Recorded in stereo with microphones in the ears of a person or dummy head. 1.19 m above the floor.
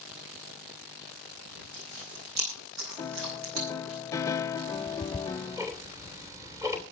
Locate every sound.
1.6 s chewing: 90° right, 10 m
3.0 s a piano: 15° left (ahead or behind), 0.6 m
4.7 s ticking: 15° right (ahead or behind), 3 m